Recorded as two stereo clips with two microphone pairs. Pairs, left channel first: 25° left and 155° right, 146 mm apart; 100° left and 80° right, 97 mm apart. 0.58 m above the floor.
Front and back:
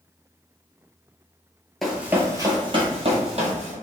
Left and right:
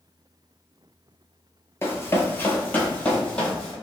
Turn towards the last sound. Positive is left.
turn(degrees=180)